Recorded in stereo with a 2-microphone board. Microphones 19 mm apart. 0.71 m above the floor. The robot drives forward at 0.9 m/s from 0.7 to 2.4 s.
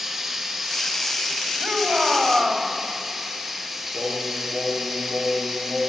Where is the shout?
40° right (ahead or behind), 4.5 m; by 2.7 s 50° right (ahead or behind), 4 m.